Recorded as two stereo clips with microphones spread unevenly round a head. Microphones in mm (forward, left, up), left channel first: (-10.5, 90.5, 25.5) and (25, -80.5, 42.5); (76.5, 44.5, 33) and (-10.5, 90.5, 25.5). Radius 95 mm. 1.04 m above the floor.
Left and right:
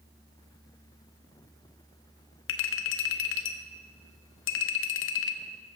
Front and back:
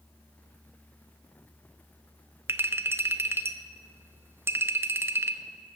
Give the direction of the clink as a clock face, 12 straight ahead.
9 o'clock.